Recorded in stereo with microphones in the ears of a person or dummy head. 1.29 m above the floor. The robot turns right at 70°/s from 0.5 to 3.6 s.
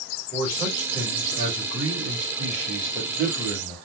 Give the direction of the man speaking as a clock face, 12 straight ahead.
6 o'clock.